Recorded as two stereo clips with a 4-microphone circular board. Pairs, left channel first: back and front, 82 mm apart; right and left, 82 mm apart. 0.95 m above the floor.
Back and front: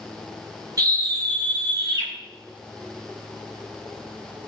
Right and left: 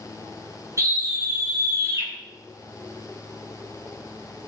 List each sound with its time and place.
0.8 s a scream: 40° left, 4.5 m